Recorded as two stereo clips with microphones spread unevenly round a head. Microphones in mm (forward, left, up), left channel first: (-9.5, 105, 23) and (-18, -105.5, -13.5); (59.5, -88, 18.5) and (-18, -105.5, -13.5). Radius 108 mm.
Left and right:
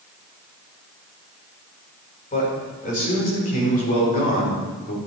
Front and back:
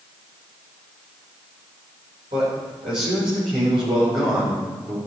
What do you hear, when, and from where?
2.3 s a man speaking: 145° left, 6 m; by 5.0 s 140° left, 4.5 m